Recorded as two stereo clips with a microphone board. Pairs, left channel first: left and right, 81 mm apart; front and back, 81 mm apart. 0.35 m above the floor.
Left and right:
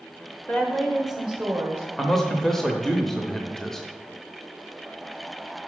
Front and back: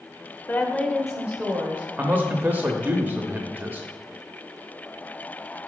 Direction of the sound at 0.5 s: 30° left.